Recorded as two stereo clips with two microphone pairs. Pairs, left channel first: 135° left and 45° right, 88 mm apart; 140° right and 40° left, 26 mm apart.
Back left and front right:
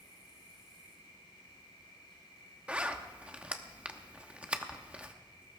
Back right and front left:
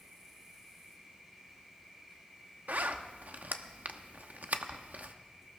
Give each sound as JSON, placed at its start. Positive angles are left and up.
{"t": 0.0, "sound": "an insect", "azimuth_deg": 120, "distance_m": 7.0}
{"t": 2.7, "sound": "a zipper", "azimuth_deg": 30, "distance_m": 0.9}